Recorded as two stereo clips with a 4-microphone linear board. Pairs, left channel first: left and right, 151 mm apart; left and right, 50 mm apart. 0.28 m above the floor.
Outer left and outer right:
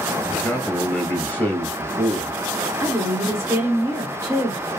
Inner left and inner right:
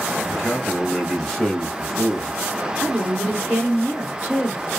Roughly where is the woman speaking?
Centre.